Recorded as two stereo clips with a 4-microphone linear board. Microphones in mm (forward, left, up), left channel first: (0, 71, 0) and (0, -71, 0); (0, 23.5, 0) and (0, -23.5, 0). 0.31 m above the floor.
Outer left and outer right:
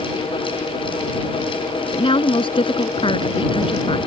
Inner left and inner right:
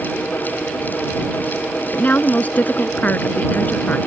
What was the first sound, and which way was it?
A woman speaking, 40° left (ahead or behind).